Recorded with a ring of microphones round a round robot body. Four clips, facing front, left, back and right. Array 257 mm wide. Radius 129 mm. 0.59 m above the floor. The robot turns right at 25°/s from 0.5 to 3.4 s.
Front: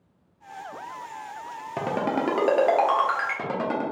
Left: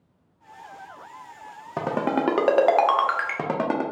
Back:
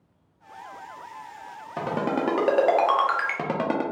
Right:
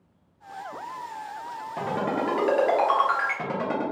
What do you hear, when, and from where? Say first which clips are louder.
1.8 s a ringtone: left 3 dB, even; 70° left, 0.5 m; by 3.8 s 110° left, 0.5 m